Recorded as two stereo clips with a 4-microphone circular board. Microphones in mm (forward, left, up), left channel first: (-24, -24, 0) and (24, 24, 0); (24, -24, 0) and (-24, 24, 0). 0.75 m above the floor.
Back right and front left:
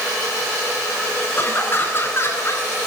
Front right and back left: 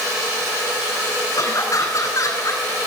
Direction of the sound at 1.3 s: 75° right.